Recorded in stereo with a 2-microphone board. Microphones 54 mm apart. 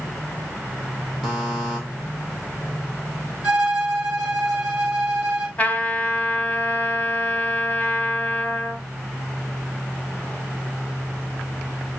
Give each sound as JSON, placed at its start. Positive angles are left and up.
{"t": 1.2, "sound": "a buzzer", "side_deg": -5, "distance_m": 2.0}
{"t": 3.4, "sound": "a violin", "side_deg": -25, "distance_m": 3.0}
{"t": 5.6, "sound": "a trumpet", "side_deg": 25, "distance_m": 1.6}